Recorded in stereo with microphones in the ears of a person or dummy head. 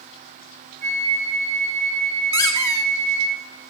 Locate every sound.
0.8 s a flute: 45° right (ahead or behind), 6 m
2.3 s a squeak: 20° left (ahead or behind), 1.3 m